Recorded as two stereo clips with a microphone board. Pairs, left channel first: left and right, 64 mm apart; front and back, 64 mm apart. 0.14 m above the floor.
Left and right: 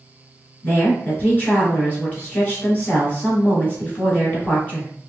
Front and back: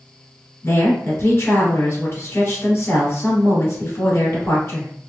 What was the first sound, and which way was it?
A woman speaking, 30° left.